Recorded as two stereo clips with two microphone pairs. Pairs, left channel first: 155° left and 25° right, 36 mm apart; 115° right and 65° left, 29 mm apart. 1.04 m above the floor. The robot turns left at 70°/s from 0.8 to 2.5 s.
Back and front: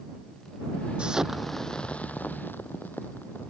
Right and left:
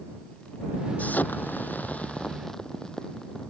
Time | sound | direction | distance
1.0 | an explosion | 80° right | ?